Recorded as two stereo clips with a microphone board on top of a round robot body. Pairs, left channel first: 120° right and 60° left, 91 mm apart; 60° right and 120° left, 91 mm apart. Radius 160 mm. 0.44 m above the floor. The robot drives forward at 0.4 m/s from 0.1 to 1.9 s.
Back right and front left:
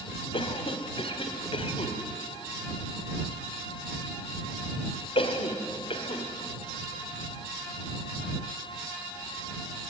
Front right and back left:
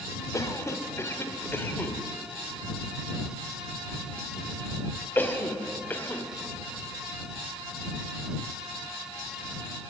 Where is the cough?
115° right, 2 m; by 6.2 s 130° right, 2.5 m.